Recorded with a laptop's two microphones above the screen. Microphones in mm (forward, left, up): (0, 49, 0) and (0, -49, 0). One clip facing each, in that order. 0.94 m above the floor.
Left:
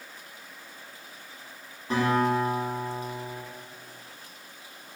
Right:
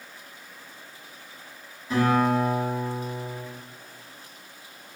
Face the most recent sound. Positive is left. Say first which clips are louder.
# right 2 dB
turn(degrees=55)  # may be behind; listen again after turning